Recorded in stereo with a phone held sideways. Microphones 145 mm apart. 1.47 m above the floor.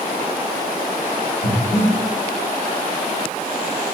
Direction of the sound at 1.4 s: 45° left (ahead or behind).